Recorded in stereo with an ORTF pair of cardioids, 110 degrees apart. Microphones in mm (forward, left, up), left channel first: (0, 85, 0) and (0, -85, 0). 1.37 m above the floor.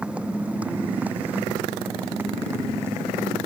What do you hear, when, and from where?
0.0 s a motorcycle: 5° right; by 3.5 s 15° right